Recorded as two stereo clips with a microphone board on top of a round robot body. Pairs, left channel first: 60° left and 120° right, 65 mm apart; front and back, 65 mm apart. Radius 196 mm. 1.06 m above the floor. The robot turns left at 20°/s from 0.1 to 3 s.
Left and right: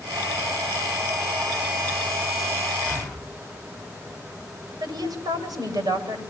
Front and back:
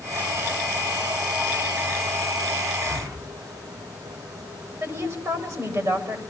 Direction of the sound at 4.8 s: 140° right.